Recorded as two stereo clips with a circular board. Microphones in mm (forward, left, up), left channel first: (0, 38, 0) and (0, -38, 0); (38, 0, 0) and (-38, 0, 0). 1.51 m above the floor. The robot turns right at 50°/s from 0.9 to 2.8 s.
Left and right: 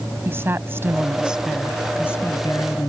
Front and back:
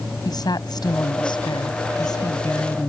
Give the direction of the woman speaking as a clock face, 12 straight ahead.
1 o'clock.